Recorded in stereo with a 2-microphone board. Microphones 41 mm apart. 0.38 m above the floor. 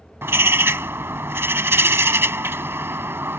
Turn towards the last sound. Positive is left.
turn(degrees=-80)